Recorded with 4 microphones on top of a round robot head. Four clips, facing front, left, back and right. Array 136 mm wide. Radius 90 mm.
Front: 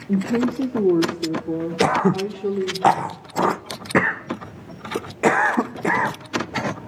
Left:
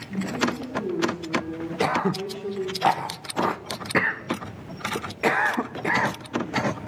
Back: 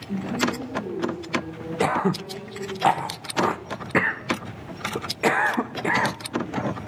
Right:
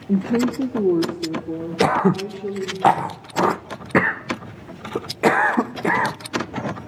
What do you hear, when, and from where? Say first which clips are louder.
0.1 s a woman speaking: right 7 dB, front 5 dB; 60° right, 2 m; by 2.8 s straight ahead, 3.5 m
1.8 s throat clearing: right 6 dB, front 4 dB; 55° right, 0.6 m